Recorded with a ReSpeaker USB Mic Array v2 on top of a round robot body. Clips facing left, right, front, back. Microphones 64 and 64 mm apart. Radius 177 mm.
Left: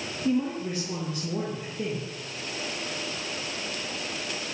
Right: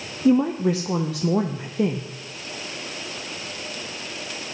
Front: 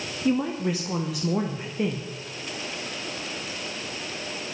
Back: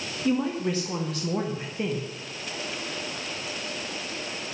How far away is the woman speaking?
About 0.8 m.